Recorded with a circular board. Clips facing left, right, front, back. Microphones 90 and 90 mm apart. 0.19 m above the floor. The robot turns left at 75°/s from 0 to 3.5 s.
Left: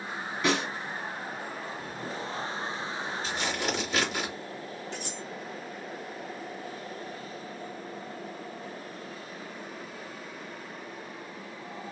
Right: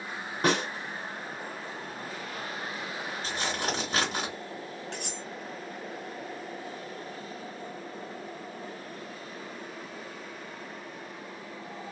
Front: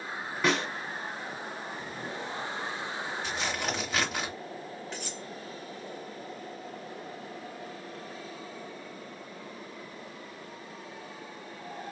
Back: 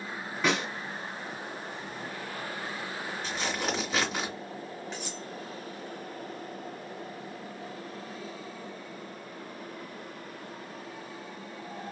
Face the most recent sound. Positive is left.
turn(degrees=-95)